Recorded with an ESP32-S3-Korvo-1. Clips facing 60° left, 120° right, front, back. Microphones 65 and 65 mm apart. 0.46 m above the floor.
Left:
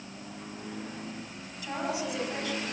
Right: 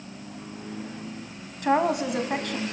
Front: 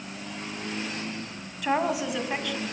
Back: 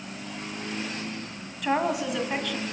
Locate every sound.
1.6 s a woman speaking: 90° right, 2.5 m